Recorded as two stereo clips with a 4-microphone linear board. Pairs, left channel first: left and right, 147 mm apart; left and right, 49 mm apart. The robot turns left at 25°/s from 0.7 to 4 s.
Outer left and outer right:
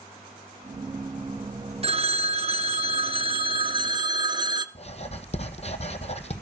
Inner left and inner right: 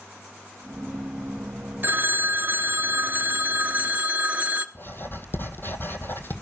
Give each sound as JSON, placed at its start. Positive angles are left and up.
{"t": 1.8, "sound": "a phone ringing", "azimuth_deg": -75, "distance_m": 0.8}
{"t": 4.8, "sound": "writing", "side_deg": 45, "distance_m": 1.2}